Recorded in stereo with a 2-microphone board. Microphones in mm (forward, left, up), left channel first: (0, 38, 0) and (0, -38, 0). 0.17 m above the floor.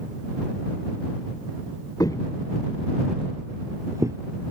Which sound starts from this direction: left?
Footsteps, at 2.0 s.